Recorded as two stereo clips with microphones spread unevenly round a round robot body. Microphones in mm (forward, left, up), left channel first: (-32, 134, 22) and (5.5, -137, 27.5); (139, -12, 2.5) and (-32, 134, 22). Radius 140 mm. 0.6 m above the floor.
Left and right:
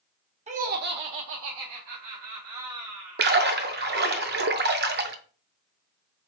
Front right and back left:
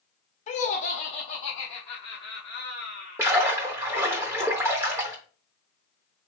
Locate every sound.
0.5 s laughter: 35° right, 0.8 m; by 3.2 s 110° right, 1.8 m
3.2 s a splash: 140° right, 0.5 m